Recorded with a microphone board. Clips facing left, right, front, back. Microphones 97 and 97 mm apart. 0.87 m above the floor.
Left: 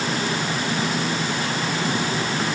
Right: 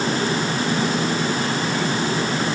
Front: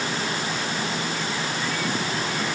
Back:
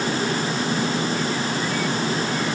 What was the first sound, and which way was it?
Only background noise.